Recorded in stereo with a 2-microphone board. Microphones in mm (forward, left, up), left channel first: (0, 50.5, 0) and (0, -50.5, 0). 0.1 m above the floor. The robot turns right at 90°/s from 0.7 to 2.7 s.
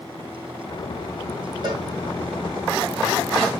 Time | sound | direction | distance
1.6 | a cowbell | 45° right (ahead or behind) | 4 m